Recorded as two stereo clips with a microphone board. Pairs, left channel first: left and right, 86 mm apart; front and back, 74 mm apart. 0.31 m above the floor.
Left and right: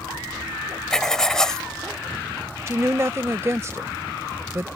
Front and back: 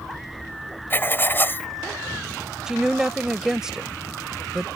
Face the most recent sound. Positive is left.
turn(degrees=-100)